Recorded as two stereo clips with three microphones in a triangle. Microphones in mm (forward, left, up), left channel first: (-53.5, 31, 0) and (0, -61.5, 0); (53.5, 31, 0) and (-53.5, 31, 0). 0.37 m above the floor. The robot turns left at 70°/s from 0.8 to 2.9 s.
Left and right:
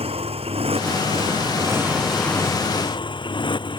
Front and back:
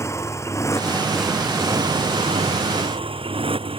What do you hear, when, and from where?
0.0 s a motorcycle: 60° right; by 3.8 s 155° left